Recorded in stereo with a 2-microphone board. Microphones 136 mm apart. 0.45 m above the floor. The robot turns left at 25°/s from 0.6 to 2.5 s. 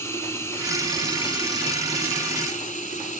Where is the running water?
160° left, 1.4 m; by 3.2 s 115° left, 1.4 m.